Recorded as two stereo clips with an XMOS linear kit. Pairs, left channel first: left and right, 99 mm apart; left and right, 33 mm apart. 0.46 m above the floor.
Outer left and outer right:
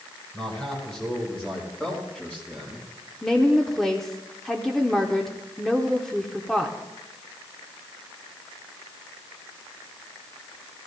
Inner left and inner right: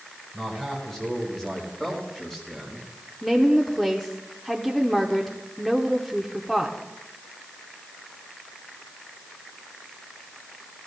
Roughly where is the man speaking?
Centre.